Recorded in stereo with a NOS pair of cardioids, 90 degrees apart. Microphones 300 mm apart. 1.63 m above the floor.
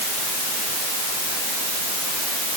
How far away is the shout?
No shout in this recording.